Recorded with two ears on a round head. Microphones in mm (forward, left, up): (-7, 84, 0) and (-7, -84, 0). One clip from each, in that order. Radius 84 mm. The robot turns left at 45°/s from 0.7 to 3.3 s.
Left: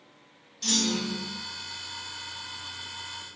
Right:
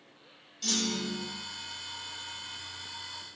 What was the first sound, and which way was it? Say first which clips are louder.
A clunk: left 4 dB; centre (ahead or behind).